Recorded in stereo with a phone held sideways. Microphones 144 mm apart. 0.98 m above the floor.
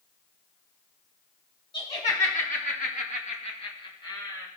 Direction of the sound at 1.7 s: 45° left (ahead or behind).